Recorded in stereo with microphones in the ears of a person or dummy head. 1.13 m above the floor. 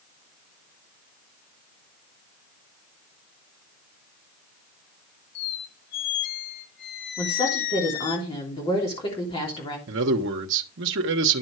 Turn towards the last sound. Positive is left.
turn(degrees=-60)  # may be behind; listen again after turning